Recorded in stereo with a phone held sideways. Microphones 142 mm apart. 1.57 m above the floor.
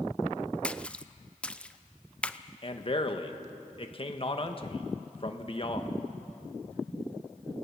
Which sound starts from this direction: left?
A man speaking, at 2.6 s.